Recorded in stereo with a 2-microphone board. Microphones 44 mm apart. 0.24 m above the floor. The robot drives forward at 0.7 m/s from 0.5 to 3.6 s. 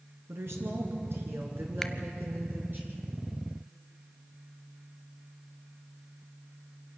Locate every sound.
0.3 s a woman speaking: 70° right (ahead or behind), 2.5 m; by 2.8 s 50° right (ahead or behind), 3 m
1.8 s a finger snap: 10° left (ahead or behind), 0.8 m